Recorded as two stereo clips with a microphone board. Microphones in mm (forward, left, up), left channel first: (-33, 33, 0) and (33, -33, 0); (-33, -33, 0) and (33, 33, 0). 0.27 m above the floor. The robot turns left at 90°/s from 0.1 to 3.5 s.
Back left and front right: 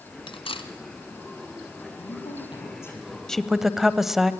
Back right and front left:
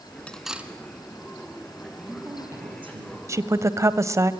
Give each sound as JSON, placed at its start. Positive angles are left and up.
{"t": 0.3, "sound": "cutlery clinking", "azimuth_deg": 150, "distance_m": 1.4}
{"t": 2.0, "sound": "a woman speaking", "azimuth_deg": 150, "distance_m": 7.0}
{"t": 3.3, "sound": "a woman speaking", "azimuth_deg": 55, "distance_m": 1.1}